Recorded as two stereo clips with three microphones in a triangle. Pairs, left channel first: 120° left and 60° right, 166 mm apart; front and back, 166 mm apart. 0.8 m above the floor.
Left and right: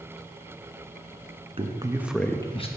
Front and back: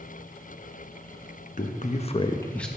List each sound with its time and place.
1.6 s a man speaking: 15° right, 0.8 m; by 2.7 s 85° left, 0.7 m